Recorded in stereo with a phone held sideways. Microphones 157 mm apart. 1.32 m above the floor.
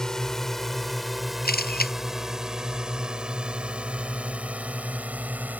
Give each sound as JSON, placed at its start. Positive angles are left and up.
{"t": 0.0, "sound": "a drone", "side_deg": 5}
{"t": 1.4, "sound": "a camera shutter", "side_deg": 80}